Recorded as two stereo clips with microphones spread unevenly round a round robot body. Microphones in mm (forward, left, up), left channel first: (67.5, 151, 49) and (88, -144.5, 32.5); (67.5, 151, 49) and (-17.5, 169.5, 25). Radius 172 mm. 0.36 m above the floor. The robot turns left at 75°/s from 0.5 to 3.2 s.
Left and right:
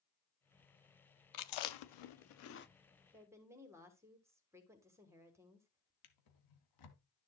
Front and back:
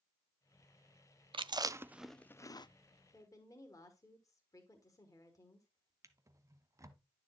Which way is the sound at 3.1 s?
20° right.